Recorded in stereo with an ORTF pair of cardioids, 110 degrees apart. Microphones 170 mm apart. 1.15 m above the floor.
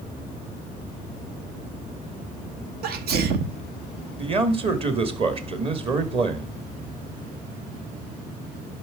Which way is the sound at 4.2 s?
30° right.